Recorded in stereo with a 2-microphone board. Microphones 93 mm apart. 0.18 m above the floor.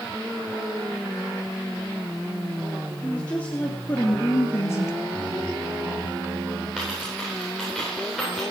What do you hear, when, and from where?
3.0 s a woman speaking: 15° left (ahead or behind), 3 m; by 5.0 s 30° left (ahead or behind), 1.5 m
5.1 s singing: 15° right (ahead or behind), 7 m
6.8 s a dropped coin: 5° right (ahead or behind), 9.5 m